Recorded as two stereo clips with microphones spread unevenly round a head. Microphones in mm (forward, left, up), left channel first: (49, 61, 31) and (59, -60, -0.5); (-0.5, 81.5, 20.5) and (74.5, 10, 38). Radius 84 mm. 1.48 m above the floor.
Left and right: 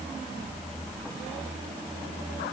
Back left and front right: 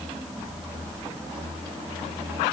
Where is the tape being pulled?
No tape being pulled in this recording.